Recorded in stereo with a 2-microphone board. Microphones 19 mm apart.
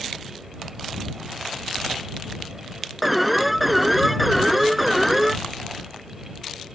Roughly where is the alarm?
Centre.